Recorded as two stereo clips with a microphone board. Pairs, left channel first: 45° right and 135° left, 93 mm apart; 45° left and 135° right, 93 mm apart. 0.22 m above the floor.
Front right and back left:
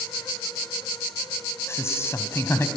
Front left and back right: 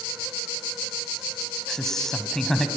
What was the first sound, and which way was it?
A man speaking, 35° right.